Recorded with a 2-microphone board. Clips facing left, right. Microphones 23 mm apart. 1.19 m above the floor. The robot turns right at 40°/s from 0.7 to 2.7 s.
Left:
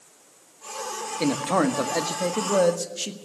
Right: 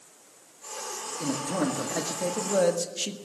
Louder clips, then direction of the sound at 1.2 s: Left 6 dB; 105° left.